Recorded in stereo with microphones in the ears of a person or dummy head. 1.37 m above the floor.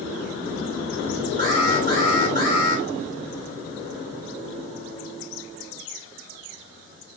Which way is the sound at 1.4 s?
40° right (ahead or behind).